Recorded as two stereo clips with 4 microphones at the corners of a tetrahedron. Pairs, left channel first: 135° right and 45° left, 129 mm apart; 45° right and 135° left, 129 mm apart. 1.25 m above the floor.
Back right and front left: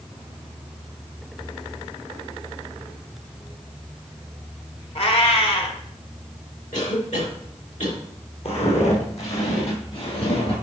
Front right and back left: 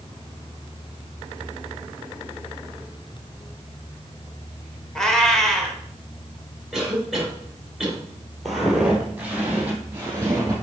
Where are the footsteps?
135° right, 2 m; by 10.5 s 160° right, 3 m.